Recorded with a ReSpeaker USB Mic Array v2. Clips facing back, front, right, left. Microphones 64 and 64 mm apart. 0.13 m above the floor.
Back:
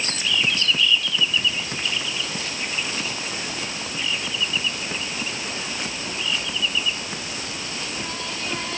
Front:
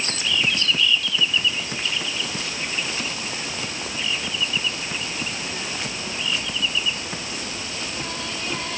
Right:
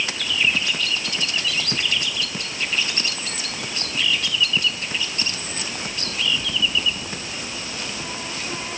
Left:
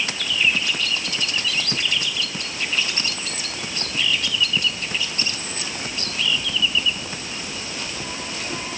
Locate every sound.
Only background noise.